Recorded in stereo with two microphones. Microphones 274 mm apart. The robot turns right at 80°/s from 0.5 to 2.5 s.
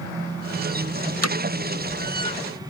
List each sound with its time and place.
1.2 s hammering: 60° left (ahead or behind); by 1.4 s 75° left (ahead or behind)